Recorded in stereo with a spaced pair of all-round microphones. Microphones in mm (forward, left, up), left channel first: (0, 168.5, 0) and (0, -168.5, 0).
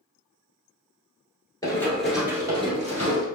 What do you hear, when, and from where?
1.6 s running footsteps: 10° left (ahead or behind), 1.2 m; by 3.3 s 25° right (ahead or behind), 1.5 m